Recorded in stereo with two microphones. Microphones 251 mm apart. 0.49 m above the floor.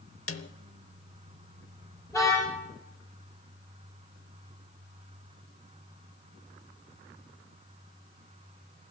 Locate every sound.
0.3 s a snare drum: 55° left (ahead or behind), 0.8 m
2.1 s a car horn: 10° left (ahead or behind), 9.5 m